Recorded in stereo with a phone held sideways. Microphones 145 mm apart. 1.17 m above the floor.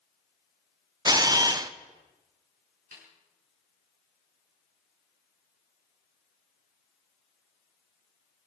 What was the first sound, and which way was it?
A camera shutter, 25° right (ahead or behind).